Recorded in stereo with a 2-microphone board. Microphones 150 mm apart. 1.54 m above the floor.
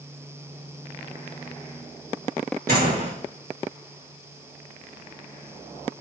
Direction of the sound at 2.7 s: 80° right.